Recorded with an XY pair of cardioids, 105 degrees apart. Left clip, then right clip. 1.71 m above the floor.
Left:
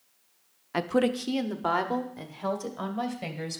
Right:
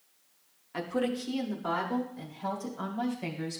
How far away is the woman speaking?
About 0.6 m.